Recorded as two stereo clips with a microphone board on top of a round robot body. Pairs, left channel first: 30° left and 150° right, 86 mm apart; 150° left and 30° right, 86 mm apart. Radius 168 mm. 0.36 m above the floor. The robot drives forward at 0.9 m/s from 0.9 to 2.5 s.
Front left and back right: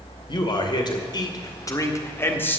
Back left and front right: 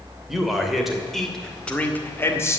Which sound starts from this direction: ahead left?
A man speaking, at 0.3 s.